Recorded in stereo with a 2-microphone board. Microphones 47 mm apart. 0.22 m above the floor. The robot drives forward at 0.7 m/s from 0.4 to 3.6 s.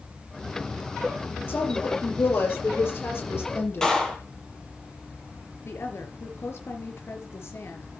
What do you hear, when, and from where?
1.5 s a woman speaking: 55° left (ahead or behind), 7 m; by 3.9 s 60° left (ahead or behind), 6.5 m
3.8 s a clap: 15° left (ahead or behind), 4.5 m
5.7 s a woman speaking: 70° left (ahead or behind), 4.5 m